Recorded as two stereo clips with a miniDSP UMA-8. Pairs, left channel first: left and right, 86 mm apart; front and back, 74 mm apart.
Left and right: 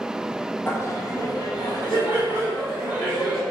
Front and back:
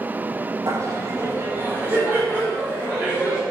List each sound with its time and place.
0.7 s laughter: 150° left, 0.5 m; by 3.4 s 110° left, 2 m